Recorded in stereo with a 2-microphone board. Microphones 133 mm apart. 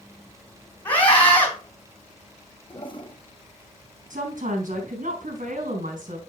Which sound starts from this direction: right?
A woman speaking, at 4.1 s.